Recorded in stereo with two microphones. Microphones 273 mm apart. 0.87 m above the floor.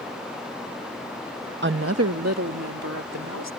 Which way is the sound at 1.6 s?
45° right (ahead or behind).